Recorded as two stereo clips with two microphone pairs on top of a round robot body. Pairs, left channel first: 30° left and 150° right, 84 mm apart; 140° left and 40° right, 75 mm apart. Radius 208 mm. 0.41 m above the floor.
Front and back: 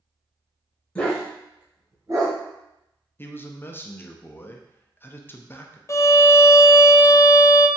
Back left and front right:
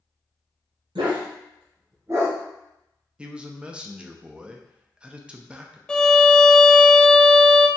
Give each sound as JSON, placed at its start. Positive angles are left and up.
{"t": 0.9, "sound": "a dog barking", "azimuth_deg": -45, "distance_m": 0.8}
{"t": 3.2, "sound": "a man speaking", "azimuth_deg": 30, "distance_m": 0.7}
{"t": 5.9, "sound": "a violin", "azimuth_deg": 70, "distance_m": 0.5}